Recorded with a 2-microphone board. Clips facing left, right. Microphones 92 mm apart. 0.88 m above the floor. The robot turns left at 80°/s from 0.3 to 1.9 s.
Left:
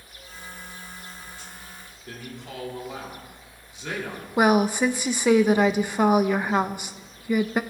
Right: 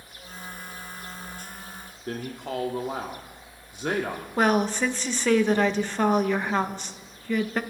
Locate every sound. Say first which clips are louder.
2.1 s a man speaking: right 7 dB; 50° right (ahead or behind), 1.8 m
4.4 s a woman speaking: left 3 dB; 10° left (ahead or behind), 0.8 m